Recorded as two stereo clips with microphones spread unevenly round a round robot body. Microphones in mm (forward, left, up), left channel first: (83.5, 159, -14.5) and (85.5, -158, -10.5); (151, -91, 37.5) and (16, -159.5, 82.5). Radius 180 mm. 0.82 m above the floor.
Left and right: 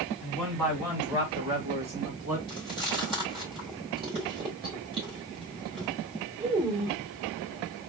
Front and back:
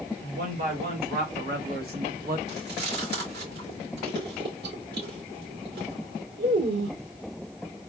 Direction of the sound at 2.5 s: 165° right.